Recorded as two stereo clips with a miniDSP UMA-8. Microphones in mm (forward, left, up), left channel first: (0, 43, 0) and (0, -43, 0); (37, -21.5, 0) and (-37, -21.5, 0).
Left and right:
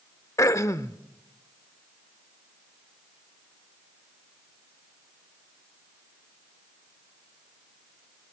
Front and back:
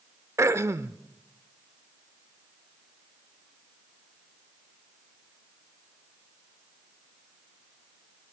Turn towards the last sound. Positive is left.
turn(degrees=135)